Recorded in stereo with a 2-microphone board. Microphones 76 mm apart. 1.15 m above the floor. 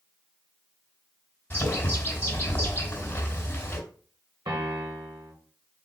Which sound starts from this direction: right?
A piano, at 4.5 s.